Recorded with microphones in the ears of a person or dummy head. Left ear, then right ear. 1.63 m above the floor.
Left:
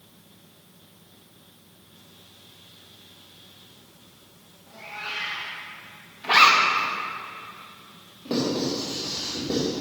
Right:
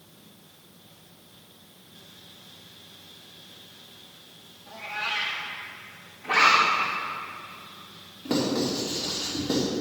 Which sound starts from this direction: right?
A cat meowing, at 4.7 s.